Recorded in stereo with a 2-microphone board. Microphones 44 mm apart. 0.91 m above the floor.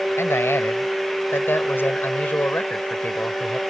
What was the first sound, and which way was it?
A man speaking, 80° left.